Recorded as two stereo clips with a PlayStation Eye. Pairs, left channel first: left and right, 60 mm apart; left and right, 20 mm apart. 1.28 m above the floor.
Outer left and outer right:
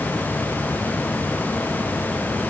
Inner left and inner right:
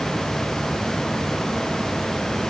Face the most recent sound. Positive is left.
No sound to turn to.